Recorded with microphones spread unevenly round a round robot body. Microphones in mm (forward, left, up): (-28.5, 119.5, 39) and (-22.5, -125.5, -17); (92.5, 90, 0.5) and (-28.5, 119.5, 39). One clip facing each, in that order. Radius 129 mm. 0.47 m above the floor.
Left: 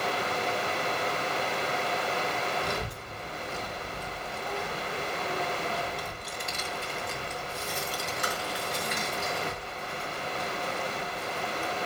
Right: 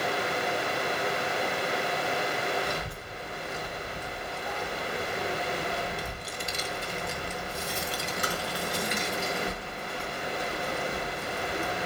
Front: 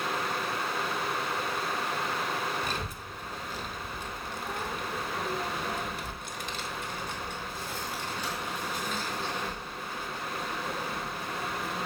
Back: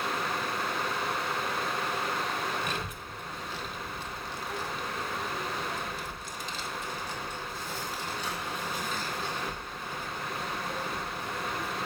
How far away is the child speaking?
About 1.9 m.